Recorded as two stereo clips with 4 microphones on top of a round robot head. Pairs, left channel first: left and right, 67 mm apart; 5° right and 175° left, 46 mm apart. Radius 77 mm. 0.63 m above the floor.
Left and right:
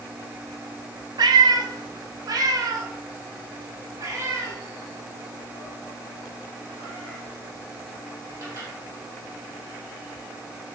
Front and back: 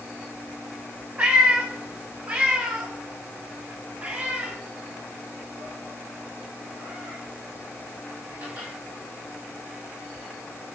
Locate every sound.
1.2 s a cat meowing: 115° right, 1.0 m; by 8.7 s 135° right, 5.5 m